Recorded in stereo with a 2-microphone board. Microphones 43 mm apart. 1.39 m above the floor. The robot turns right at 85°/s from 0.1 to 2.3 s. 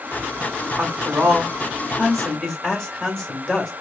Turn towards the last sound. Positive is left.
turn(degrees=15)